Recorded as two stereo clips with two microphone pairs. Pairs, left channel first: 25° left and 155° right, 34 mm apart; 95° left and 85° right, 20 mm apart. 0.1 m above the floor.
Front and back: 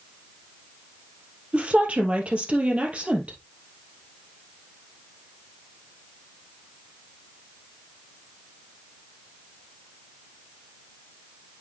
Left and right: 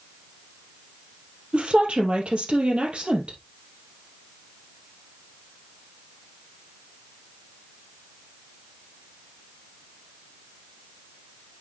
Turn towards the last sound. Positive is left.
turn(degrees=-105)